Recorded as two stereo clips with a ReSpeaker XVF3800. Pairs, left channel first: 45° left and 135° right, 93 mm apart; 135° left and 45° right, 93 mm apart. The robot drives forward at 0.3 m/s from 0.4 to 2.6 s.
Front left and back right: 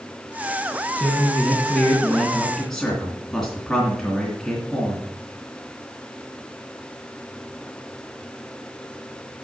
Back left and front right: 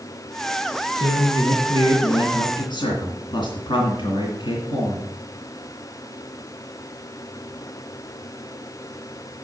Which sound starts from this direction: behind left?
A man speaking, at 1.0 s.